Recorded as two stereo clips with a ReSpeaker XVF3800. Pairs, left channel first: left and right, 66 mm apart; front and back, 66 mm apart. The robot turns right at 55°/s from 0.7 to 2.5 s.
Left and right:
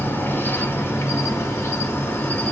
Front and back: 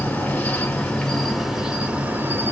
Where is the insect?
55° left, 0.9 m; by 2.5 s 155° left, 0.9 m.